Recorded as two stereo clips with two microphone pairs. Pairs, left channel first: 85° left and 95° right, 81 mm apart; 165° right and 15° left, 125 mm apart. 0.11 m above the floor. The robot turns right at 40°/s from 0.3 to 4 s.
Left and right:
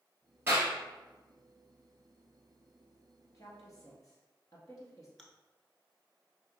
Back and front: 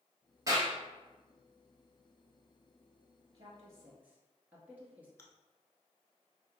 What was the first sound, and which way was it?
A clap, 40° right.